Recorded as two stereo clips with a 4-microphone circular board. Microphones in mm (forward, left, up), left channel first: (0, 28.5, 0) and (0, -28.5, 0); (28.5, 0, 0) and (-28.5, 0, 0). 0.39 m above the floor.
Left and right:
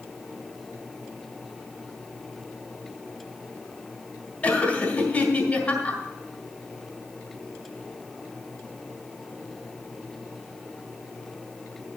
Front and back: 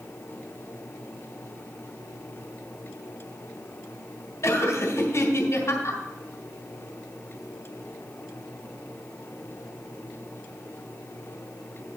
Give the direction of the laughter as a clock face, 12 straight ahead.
11 o'clock.